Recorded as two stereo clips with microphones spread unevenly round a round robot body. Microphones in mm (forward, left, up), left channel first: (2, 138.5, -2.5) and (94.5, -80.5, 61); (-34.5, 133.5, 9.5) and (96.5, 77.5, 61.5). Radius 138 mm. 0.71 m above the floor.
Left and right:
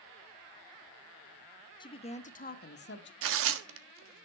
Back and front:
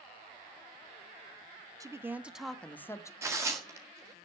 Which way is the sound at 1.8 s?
55° left.